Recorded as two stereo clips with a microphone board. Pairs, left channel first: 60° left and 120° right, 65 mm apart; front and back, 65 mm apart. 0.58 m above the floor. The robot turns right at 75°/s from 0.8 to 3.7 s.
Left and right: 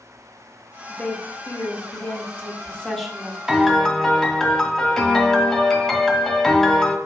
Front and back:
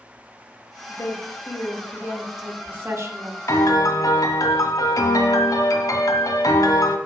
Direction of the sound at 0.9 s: 10° right.